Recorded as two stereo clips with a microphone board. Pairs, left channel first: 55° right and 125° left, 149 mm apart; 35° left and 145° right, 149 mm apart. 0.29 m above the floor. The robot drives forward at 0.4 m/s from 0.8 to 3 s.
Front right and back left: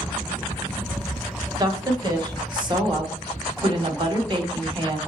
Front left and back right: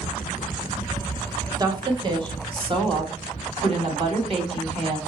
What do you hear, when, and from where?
1.6 s a woman speaking: 170° left, 1.2 m; by 5.0 s 175° left, 1.6 m